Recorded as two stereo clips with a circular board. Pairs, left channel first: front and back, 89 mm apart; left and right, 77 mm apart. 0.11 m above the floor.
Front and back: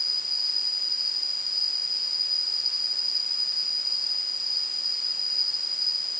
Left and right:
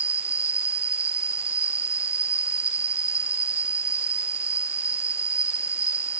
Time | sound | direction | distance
0.0 | an insect | 40° left | ?